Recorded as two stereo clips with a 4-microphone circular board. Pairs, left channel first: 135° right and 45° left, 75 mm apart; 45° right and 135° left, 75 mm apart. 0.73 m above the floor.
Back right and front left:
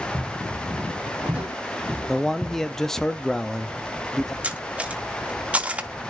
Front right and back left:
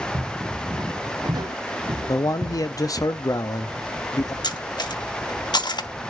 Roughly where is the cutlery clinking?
Ahead right.